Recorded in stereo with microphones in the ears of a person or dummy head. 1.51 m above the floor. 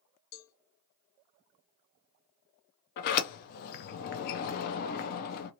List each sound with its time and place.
0.3 s a cowbell: 70° left (ahead or behind), 0.7 m
3.0 s a sliding door: 55° left (ahead or behind), 0.5 m